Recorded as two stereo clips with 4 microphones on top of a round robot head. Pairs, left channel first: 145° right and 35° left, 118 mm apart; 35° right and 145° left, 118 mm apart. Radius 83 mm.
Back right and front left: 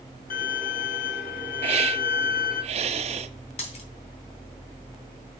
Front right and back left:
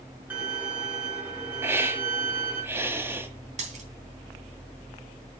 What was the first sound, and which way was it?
A violin, 140° right.